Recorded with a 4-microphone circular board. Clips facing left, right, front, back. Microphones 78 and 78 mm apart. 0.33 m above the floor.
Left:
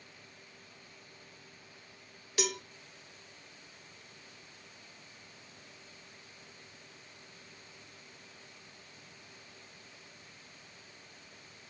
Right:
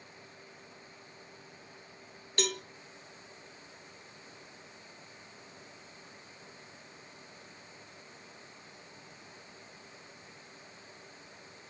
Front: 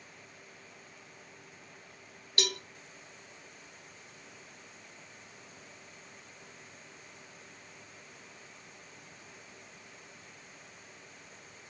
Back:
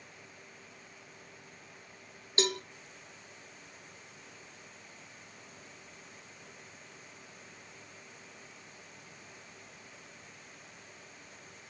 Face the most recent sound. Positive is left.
turn(degrees=170)